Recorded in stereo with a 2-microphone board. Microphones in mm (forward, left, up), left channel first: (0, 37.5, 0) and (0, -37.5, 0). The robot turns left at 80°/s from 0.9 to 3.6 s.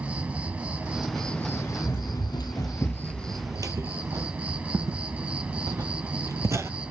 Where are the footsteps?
55° right (ahead or behind), 1.5 m; by 6.7 s 40° right (ahead or behind), 0.6 m.